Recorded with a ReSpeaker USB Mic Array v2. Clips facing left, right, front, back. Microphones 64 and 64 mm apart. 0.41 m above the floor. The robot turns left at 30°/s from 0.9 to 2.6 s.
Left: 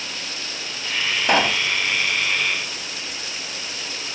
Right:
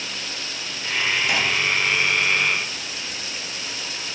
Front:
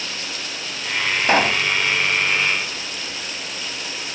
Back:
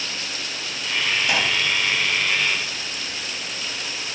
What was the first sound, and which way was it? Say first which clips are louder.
A pop: left 4 dB, front 9 dB; 50° left.